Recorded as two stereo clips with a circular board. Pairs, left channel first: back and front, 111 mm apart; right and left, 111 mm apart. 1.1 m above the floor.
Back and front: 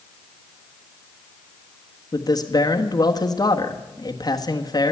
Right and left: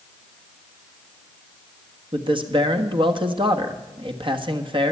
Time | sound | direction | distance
2.1 | a man speaking | 130° left | 1.3 m